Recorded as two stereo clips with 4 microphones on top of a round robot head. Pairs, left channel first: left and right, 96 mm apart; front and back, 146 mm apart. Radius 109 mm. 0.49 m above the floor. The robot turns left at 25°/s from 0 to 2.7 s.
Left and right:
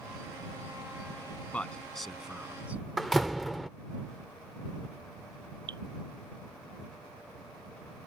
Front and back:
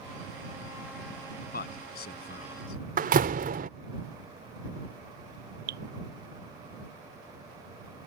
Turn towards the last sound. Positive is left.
turn(degrees=-150)